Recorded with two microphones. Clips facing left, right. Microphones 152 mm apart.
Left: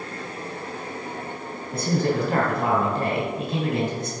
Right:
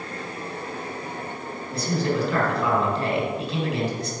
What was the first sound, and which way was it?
A man speaking, 50° left (ahead or behind).